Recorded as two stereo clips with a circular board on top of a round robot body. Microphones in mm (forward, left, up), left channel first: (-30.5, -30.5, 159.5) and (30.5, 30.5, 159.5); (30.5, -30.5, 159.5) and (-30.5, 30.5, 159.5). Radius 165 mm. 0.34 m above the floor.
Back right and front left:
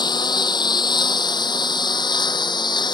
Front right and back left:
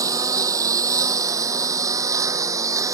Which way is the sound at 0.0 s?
175° right.